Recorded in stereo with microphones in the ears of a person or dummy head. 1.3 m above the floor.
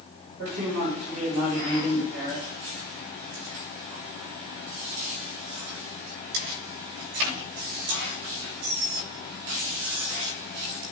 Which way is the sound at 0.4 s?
65° right (ahead or behind).